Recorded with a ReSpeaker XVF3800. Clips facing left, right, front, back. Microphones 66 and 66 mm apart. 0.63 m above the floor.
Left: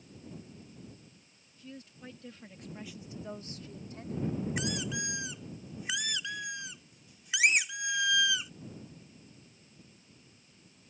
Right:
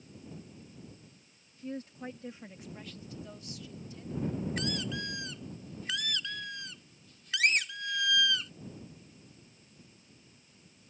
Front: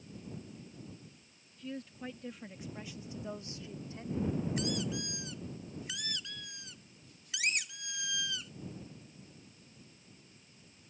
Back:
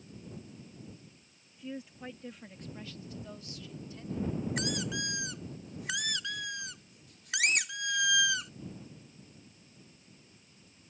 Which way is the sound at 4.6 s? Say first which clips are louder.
Even, back 1 dB; 165° left.